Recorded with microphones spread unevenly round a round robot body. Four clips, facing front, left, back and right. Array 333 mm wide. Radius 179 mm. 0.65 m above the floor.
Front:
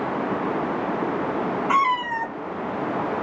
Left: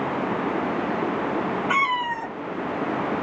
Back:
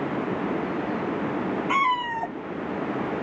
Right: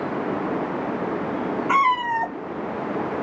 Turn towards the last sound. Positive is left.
turn(degrees=180)